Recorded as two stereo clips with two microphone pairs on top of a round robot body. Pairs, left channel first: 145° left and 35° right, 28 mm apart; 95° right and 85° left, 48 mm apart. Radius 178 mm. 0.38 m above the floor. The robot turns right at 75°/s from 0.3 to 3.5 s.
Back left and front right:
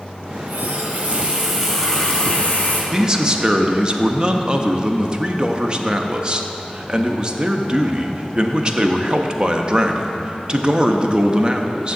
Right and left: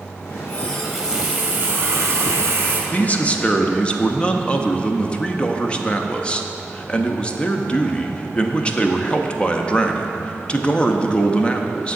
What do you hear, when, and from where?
0.3 s a running tap: 50° right, 1.7 m; by 2.8 s 140° left, 1.7 m
2.9 s a man speaking: 90° right, 0.9 m; by 12.0 s 45° right, 0.9 m